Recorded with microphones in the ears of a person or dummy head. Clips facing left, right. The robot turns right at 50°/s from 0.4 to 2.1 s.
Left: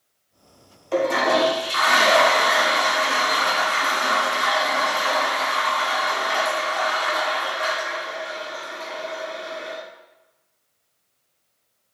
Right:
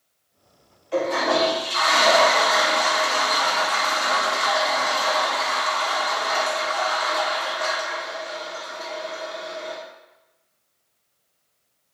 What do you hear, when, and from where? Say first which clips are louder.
0.9 s a toilet flushing: left 2 dB; 80° left, 1.5 m; by 9.8 s 140° left, 1.5 m